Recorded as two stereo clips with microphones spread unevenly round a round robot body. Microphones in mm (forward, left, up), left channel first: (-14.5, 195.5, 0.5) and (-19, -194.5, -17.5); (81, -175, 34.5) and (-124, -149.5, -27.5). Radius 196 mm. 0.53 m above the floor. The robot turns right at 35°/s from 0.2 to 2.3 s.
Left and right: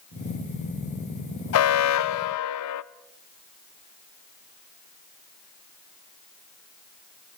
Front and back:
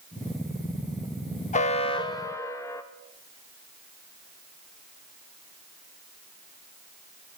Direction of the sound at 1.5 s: 60° left.